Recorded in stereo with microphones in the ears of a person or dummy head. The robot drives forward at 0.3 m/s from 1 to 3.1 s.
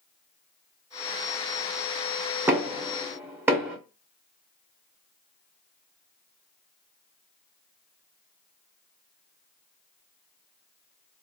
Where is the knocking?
10° right (ahead or behind), 0.5 m.